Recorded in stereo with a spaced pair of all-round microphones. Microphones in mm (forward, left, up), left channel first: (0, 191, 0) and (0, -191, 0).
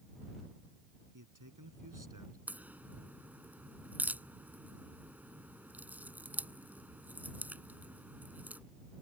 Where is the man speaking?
55° right (ahead or behind).